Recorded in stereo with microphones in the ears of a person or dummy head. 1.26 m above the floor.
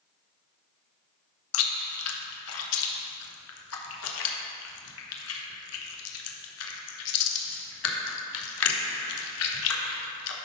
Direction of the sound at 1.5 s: 85° left.